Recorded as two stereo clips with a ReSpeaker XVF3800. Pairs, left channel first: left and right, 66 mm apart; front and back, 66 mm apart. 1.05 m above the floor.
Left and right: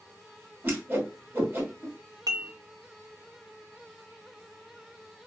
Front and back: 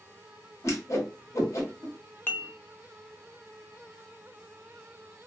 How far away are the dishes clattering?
About 0.6 m.